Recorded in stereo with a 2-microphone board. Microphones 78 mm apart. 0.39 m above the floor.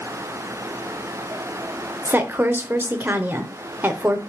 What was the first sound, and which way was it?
A woman speaking, 25° right (ahead or behind).